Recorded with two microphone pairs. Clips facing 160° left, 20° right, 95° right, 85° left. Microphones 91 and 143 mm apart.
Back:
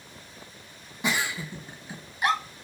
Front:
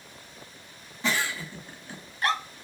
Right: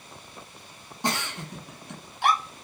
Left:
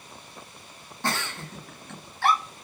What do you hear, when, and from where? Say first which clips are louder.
1.0 s a giggle: even, right 1 dB; 140° right, 0.6 m